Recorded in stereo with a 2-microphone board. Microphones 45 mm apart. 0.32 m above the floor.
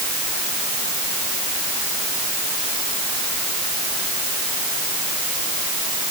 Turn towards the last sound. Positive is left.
No sound to turn to.